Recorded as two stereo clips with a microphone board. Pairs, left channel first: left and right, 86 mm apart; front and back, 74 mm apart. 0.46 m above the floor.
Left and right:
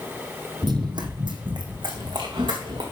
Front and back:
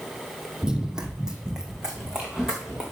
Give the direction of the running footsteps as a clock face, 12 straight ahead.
3 o'clock.